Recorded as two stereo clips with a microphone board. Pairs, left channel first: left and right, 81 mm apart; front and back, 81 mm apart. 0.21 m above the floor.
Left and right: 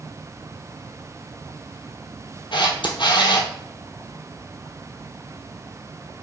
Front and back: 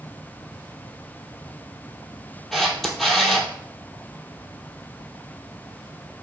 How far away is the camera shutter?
About 0.9 m.